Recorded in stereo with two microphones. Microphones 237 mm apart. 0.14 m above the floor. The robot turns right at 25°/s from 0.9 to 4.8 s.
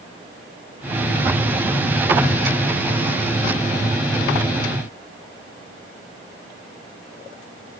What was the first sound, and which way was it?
Only background noise.